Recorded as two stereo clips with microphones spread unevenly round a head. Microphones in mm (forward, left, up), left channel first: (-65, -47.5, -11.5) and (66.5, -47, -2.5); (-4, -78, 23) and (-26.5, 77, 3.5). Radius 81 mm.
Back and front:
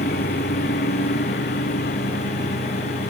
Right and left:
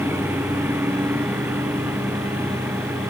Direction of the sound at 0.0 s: 175° left.